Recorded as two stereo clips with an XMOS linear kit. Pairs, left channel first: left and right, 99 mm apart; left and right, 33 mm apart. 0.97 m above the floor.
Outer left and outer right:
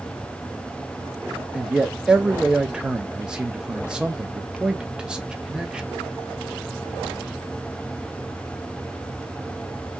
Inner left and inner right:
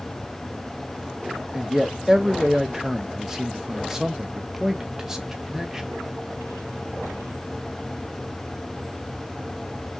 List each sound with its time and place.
1.5 s a man speaking: 10° right (ahead or behind), 0.6 m